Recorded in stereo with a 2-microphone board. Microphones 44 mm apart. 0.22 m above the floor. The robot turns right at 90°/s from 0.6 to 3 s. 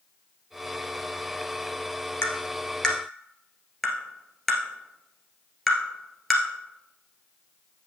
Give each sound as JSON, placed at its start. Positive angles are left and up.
{"t": 2.2, "sound": "tapping", "side_deg": 70, "distance_m": 1.6}